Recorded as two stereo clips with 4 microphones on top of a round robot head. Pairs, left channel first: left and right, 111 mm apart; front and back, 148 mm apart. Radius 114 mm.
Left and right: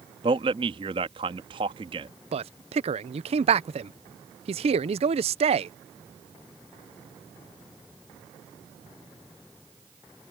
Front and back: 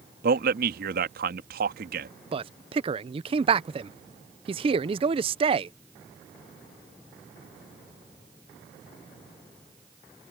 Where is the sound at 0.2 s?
145° right.